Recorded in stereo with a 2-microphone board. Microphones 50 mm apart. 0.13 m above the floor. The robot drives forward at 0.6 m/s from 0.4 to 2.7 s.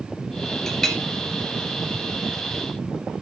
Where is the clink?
10° left (ahead or behind), 1.8 m.